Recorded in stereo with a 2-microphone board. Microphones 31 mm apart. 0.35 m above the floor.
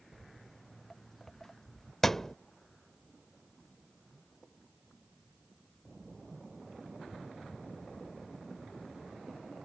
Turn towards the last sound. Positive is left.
turn(degrees=10)  # may be behind; listen again after turning